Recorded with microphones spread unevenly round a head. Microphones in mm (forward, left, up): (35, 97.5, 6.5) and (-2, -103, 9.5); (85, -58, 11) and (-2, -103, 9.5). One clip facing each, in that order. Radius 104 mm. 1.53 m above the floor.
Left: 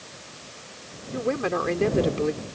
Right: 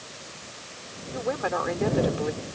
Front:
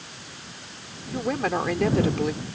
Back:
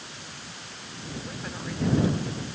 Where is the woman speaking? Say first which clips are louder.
Left 3 dB, front 13 dB; 25° left.